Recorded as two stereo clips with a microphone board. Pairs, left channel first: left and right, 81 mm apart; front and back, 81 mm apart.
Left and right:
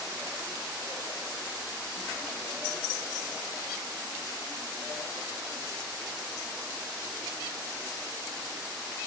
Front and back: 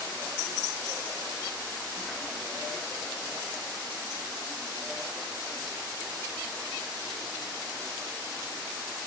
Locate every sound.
Only background noise.